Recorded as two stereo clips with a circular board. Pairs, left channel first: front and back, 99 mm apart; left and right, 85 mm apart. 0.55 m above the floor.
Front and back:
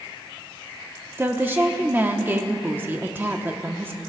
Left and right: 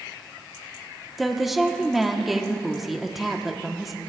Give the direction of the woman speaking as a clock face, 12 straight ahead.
6 o'clock.